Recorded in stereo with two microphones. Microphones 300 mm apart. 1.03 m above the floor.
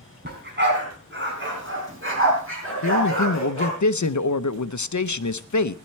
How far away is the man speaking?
About 0.6 m.